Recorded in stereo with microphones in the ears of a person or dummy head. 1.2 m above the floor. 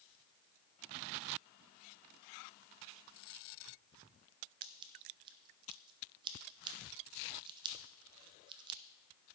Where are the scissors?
30° right (ahead or behind), 1.0 m.